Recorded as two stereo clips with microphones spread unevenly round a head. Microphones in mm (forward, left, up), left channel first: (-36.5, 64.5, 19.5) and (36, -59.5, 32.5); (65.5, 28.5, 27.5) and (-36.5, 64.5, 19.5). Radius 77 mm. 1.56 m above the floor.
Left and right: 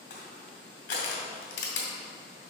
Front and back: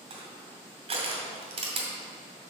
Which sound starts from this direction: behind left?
Crushing, at 0.1 s.